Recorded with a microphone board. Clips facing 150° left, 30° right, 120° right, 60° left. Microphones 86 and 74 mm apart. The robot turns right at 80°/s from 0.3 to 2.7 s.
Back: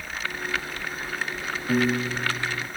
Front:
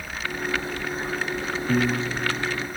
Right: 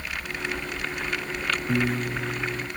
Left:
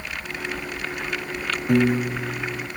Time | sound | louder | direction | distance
1.7 | a piano | back 1 dB, left 8 dB | 70° left | ?